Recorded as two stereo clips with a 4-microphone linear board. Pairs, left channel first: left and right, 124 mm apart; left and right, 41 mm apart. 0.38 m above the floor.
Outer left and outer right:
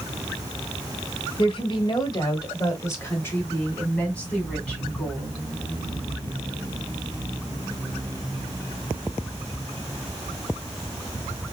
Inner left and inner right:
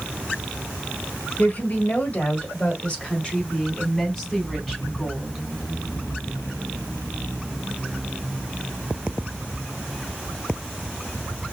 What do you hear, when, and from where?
1.4 s a woman speaking: 45° left (ahead or behind), 1.5 m; by 5.4 s 5° left (ahead or behind), 4 m